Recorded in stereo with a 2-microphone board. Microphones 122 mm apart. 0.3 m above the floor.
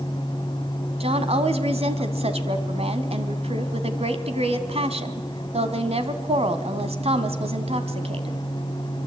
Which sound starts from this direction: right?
A woman speaking, at 1.0 s.